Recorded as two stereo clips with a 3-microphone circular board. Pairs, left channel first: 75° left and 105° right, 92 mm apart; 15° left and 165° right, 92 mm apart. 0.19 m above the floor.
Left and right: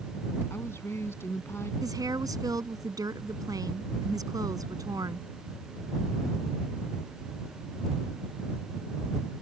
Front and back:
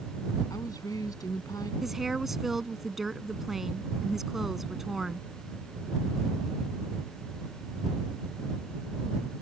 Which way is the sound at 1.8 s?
80° right.